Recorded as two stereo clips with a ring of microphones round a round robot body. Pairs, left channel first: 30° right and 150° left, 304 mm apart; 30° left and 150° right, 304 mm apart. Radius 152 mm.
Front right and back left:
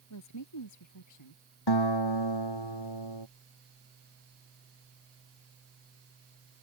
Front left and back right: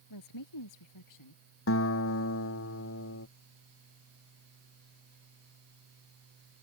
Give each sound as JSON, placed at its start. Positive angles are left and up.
{"t": 0.1, "sound": "a woman speaking", "azimuth_deg": 5}
{"t": 1.7, "sound": "a guitar", "azimuth_deg": -20}